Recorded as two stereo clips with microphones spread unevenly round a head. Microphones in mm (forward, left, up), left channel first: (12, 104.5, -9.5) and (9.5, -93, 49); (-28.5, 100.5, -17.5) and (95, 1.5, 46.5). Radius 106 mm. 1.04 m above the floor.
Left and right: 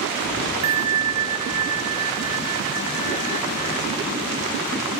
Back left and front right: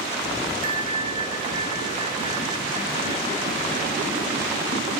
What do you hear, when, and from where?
0.6 s a bell: 105° right, 1.6 m